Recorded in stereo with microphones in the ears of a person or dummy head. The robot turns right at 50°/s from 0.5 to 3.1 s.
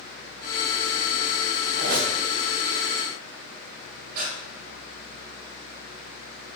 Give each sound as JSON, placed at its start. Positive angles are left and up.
{"t": 1.8, "sound": "a squeak", "side_deg": -60, "distance_m": 2.5}
{"t": 4.1, "sound": "breathing", "side_deg": -50, "distance_m": 3.5}